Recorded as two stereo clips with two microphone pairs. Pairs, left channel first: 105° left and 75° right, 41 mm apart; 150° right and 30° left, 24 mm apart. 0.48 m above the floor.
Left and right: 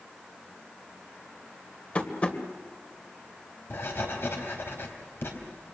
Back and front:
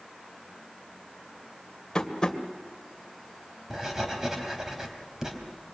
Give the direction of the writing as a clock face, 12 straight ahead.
9 o'clock.